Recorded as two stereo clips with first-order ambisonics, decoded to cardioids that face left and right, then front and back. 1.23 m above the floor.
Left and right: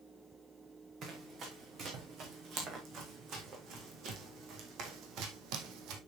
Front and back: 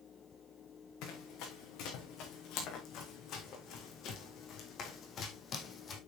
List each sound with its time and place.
1.0 s running footsteps: 35° right, 4.5 m; by 6.0 s 65° right, 2 m